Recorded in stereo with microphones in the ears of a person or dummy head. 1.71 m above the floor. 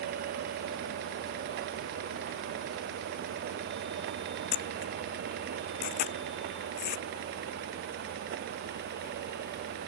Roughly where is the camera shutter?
Left.